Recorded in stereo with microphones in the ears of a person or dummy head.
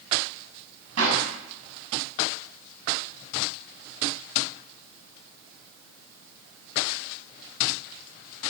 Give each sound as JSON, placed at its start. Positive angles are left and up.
{"t": 1.0, "sound": "a clap", "side_deg": -85, "distance_m": 7.0}